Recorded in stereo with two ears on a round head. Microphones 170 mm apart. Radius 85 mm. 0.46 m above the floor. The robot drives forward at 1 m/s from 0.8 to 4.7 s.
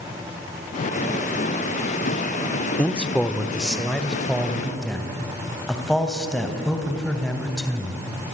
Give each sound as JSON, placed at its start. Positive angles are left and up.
{"t": 2.8, "sound": "a man speaking", "side_deg": 5, "distance_m": 1.0}